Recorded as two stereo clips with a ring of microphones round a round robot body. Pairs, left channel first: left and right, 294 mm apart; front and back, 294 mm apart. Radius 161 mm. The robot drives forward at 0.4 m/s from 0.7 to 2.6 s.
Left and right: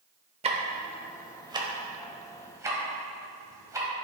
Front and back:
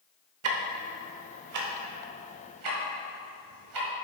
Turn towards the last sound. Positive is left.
turn(degrees=-170)